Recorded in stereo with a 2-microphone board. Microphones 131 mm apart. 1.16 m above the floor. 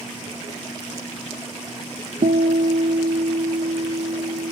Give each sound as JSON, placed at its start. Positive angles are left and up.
{"t": 2.2, "sound": "a guitar", "side_deg": -85, "distance_m": 0.7}